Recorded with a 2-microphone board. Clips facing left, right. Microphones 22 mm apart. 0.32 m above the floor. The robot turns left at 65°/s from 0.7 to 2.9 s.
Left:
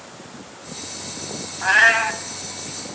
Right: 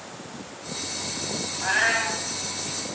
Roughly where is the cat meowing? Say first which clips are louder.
Left 8 dB; behind left.